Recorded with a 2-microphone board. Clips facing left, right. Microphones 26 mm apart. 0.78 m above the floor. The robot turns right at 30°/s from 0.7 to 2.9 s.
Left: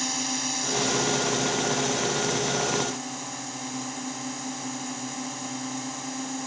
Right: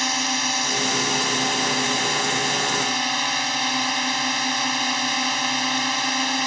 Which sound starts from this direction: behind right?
A drone, at 0.0 s.